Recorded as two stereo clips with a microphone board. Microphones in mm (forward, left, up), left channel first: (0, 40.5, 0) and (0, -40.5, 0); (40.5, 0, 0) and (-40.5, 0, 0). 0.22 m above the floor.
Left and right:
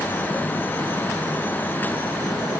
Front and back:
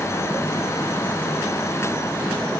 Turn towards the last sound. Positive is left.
No sound to turn to.